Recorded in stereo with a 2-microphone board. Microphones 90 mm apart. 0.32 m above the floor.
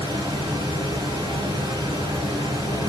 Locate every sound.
0.0 s running water: 55° right (ahead or behind), 1.8 m